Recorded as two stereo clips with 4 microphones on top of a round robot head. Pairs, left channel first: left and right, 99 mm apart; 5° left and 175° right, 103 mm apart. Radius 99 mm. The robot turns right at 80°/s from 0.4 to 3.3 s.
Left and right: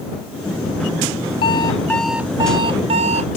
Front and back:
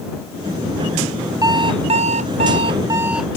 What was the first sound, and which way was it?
An alarm clock, 130° left.